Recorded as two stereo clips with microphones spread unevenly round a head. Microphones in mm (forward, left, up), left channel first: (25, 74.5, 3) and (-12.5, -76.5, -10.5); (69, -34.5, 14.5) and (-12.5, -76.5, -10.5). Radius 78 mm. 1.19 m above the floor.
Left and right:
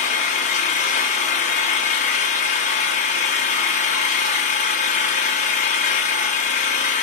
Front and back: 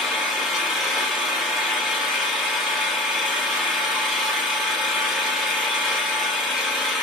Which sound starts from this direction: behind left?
An engine running, at 0.0 s.